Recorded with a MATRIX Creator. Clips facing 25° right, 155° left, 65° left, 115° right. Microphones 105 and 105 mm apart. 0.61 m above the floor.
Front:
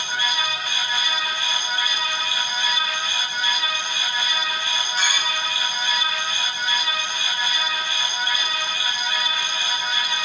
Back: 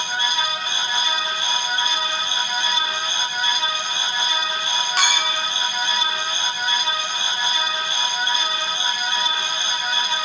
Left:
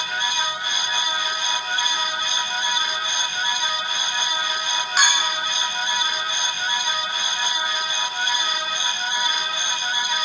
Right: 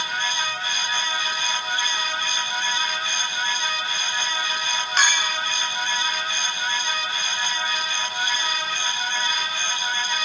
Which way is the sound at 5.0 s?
150° left.